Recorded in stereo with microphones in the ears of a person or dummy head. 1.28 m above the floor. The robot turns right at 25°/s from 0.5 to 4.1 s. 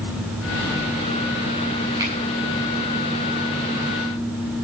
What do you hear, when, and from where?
2.0 s a finger snap: 20° right (ahead or behind), 8.5 m; by 2.1 s 25° right (ahead or behind), 8.5 m